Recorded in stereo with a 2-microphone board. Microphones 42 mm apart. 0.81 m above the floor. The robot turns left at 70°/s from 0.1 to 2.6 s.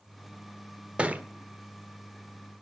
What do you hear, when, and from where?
1.0 s a thud: 30° right (ahead or behind), 1.2 m; by 1.2 s 50° right (ahead or behind), 1.2 m